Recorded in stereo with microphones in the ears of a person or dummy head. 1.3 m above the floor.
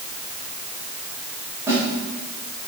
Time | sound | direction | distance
1.7 | a snare drum | 15° right (ahead or behind) | 6 m